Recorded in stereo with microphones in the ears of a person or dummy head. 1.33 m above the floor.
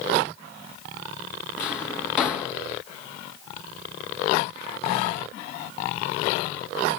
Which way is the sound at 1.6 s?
15° left (ahead or behind).